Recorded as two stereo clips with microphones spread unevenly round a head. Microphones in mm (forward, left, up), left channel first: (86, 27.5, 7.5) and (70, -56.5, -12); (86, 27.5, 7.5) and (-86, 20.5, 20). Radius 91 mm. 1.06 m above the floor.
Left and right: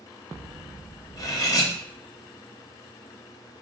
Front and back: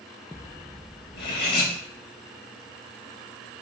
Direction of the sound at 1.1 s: 35° left.